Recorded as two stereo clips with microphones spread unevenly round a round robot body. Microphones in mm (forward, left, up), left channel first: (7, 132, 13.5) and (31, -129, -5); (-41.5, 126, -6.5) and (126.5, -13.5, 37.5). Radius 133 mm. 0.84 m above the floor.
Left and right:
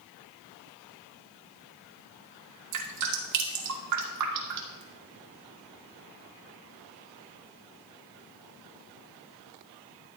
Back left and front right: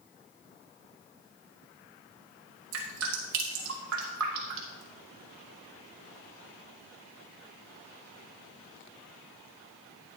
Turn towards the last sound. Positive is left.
turn(degrees=-85)